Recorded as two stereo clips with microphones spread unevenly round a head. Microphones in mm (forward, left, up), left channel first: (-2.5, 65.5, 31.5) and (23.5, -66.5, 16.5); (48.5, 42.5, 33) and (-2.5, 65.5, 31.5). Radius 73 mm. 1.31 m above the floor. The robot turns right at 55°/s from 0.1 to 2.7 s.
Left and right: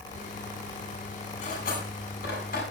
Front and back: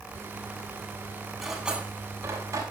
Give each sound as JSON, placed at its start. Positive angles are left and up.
{"t": 1.4, "sound": "cutlery clinking", "azimuth_deg": 65, "distance_m": 8.0}